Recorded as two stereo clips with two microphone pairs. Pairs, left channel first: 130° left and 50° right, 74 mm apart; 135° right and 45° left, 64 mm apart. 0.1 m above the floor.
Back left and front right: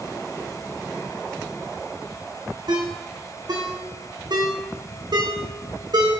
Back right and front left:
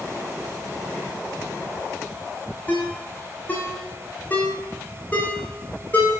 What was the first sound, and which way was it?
A ringtone, 70° right.